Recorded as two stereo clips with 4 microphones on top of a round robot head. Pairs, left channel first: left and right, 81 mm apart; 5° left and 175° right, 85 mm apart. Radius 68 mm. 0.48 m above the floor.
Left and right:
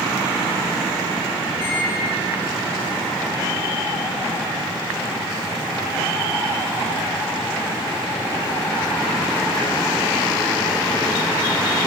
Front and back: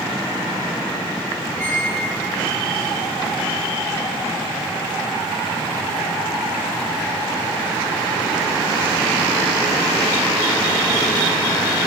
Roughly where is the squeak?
Left.